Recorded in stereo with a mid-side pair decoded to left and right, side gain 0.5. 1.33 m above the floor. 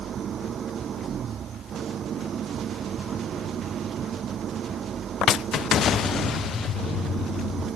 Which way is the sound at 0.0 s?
50° right.